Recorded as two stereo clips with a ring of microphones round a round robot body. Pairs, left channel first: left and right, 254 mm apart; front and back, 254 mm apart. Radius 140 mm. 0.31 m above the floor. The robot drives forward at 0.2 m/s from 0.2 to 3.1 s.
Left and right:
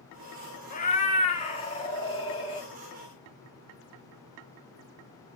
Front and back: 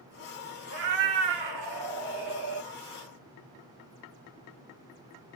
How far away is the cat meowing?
About 0.7 m.